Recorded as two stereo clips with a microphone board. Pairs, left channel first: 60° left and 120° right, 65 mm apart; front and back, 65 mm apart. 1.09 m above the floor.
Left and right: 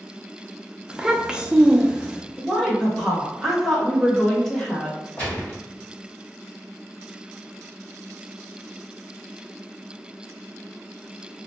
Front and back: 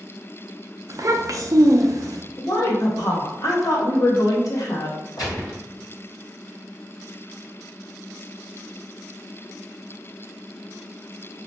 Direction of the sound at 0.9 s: 165° left.